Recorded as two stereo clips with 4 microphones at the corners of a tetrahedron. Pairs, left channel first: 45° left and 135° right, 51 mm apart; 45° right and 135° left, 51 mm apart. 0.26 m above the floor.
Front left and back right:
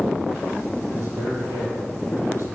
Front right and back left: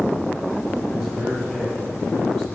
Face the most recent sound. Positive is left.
turn(degrees=-130)